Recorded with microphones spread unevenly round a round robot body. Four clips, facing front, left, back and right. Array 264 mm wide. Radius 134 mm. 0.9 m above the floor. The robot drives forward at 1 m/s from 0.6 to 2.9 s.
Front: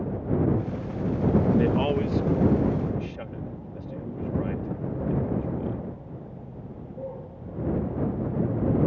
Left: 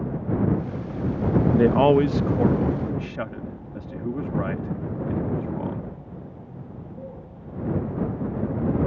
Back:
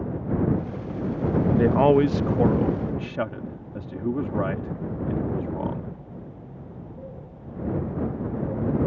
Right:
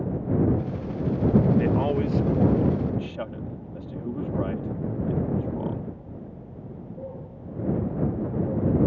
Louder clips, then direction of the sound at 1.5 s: Left 6 dB, back 5 dB; 95° left.